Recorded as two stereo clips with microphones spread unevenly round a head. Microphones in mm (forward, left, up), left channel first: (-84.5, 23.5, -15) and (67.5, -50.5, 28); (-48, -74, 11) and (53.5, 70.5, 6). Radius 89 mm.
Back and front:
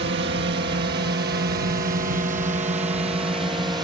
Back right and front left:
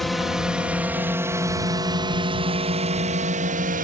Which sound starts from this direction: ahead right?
A drone, at 0.0 s.